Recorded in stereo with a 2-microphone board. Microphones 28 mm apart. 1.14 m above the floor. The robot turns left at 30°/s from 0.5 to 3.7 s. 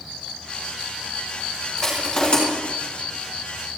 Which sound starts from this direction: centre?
Crushing, at 1.8 s.